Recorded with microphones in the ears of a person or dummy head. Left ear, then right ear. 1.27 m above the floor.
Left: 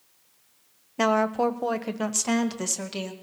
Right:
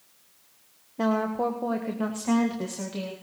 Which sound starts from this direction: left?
A woman speaking, at 1.0 s.